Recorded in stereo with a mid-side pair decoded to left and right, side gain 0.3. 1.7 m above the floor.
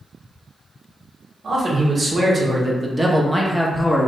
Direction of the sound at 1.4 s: 55° right.